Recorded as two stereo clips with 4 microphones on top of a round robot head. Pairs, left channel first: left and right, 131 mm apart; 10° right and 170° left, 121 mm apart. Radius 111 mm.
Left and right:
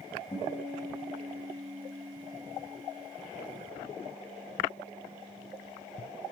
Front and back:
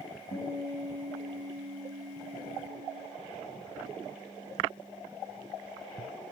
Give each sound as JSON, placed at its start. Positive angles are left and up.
{"t": 0.3, "sound": "a guitar", "azimuth_deg": 20, "distance_m": 4.5}